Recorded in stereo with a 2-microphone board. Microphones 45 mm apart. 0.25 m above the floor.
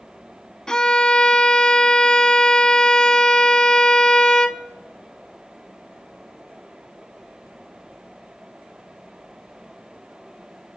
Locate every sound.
0.7 s a violin: 20° left (ahead or behind), 0.5 m